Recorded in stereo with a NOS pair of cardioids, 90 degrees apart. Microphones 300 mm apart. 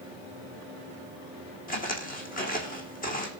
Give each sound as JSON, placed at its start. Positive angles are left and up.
{"t": 1.7, "sound": "footsteps", "azimuth_deg": 30, "distance_m": 4.0}